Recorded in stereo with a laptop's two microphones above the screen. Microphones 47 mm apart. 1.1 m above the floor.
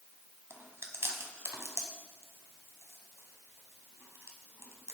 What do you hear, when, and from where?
0.5 s chewing: 65° right (ahead or behind), 2 m